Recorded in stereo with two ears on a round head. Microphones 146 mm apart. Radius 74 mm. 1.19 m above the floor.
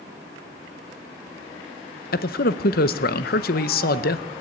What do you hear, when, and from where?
2.1 s a man speaking: 65° left (ahead or behind), 0.8 m